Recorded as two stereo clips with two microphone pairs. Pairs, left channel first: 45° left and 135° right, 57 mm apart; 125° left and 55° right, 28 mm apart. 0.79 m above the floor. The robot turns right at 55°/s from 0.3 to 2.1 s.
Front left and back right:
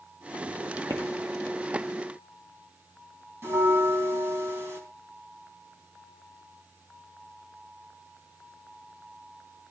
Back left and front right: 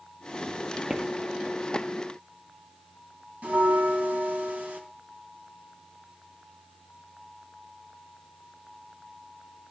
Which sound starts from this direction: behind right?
Footsteps, at 0.9 s.